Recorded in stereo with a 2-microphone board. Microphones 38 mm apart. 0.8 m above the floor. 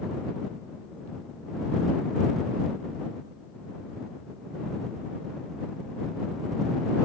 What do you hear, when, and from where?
Only background noise.